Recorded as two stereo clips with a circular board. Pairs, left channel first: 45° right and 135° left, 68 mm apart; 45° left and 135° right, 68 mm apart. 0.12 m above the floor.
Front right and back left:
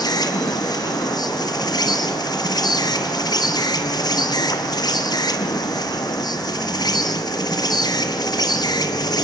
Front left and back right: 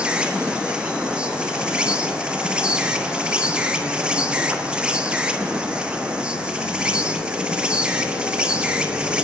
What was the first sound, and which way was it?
An insect, 60° right.